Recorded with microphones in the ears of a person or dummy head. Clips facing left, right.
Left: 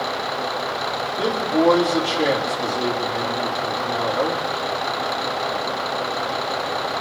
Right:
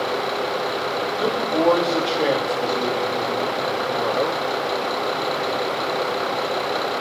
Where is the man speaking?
10° left (ahead or behind), 3 m.